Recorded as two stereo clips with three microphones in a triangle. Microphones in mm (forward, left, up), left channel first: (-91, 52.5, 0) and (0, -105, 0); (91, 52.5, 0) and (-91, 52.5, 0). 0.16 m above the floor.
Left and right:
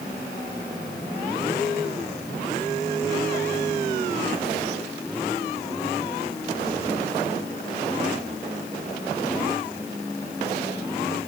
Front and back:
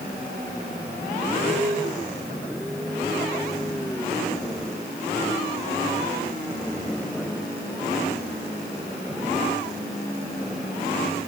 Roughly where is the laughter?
I don't hear laughter.